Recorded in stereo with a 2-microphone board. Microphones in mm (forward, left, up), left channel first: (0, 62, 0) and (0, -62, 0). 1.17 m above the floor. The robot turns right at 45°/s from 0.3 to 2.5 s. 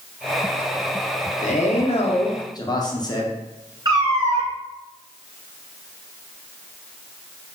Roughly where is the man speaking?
Left.